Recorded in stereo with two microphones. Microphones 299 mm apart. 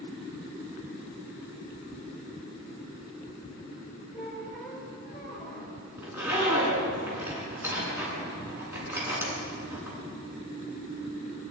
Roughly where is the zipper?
Centre.